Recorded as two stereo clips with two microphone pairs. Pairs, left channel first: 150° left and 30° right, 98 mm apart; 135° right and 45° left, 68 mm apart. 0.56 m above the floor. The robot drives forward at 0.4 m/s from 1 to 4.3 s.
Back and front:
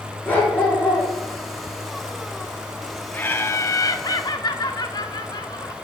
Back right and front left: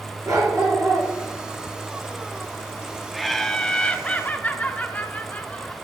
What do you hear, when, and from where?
0.2 s a dog barking: 75° left, 3.5 m
3.1 s laughter: 125° left, 0.6 m; by 5.7 s 165° left, 0.8 m